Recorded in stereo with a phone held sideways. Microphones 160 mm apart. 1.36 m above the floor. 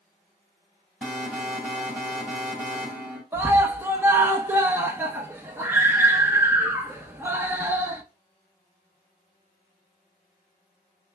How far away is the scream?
About 1.0 m.